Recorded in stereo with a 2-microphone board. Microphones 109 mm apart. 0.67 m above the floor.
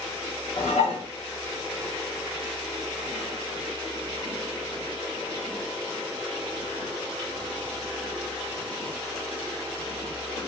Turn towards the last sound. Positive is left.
turn(degrees=80)